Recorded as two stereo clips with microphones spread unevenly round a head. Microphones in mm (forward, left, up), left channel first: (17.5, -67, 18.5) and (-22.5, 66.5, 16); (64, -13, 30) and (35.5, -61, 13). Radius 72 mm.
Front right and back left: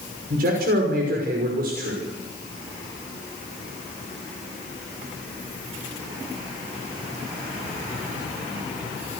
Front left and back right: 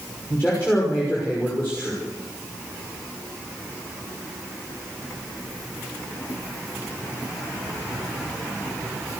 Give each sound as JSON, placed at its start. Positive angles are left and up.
{"t": 0.3, "sound": "a man speaking", "azimuth_deg": 135, "distance_m": 6.0}